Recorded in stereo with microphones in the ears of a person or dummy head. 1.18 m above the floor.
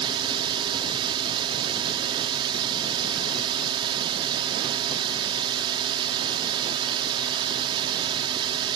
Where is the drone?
25° right (ahead or behind).